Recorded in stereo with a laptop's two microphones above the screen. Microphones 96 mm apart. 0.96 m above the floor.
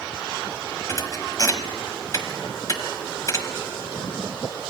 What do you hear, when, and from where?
0.9 s a thud: 35° left (ahead or behind), 1.1 m